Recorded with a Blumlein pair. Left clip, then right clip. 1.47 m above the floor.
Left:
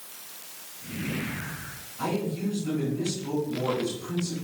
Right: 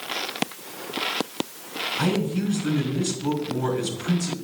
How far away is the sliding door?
No sliding door in this recording.